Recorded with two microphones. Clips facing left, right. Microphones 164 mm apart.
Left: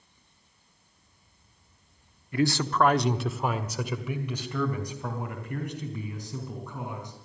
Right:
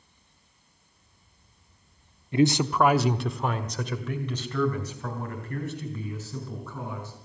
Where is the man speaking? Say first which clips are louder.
Right 3 dB; 25° right (ahead or behind), 0.7 m; by 7.1 s 15° left (ahead or behind), 5 m.